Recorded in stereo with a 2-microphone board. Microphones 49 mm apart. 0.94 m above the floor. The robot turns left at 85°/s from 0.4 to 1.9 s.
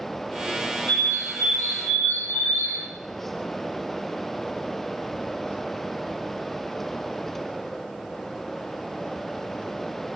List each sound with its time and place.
0.9 s a bird: 150° left, 3 m; by 2.9 s 60° left, 3 m